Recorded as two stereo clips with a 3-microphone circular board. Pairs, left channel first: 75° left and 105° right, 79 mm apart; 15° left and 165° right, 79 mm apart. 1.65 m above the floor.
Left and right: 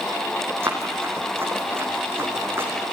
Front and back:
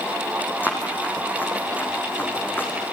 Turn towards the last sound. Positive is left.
turn(degrees=-50)